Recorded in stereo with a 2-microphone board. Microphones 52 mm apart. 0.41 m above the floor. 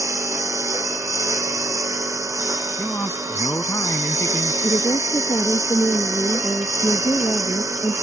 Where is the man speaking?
45° left (ahead or behind).